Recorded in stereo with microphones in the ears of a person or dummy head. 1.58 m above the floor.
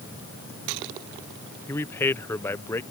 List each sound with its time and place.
1.7 s a man speaking: 15° left (ahead or behind)